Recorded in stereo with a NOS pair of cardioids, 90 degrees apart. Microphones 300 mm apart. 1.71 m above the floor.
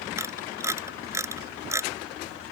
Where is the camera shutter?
10° right.